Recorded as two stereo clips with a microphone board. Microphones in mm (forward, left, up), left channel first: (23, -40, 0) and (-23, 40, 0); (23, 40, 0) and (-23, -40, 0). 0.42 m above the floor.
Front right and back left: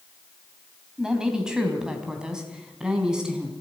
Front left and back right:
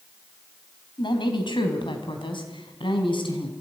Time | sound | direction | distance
1.0 | a woman speaking | 40° left | 3.5 m